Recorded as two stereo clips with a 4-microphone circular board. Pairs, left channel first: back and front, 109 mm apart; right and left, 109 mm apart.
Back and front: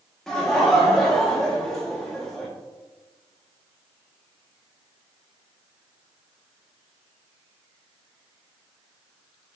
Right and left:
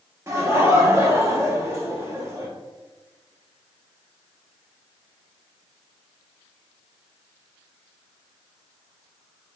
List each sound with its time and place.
0.3 s laughter: 100° left, 0.7 m